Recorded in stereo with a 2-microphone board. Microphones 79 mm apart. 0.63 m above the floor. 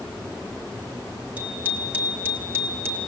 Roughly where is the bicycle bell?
Centre.